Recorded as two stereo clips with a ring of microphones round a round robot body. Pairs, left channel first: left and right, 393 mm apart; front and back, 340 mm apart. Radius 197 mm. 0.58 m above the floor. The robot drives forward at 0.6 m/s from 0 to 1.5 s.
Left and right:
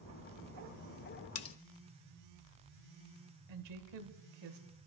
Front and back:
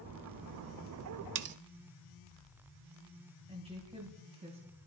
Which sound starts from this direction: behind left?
Cutlery clinking, at 1.4 s.